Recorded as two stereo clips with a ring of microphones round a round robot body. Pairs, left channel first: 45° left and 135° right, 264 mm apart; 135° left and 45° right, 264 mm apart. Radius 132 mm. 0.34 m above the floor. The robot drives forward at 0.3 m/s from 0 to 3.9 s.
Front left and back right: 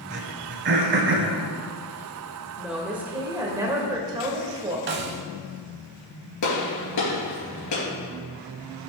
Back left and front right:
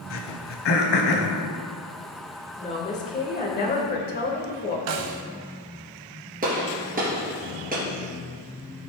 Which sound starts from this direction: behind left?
A woman speaking, at 2.6 s.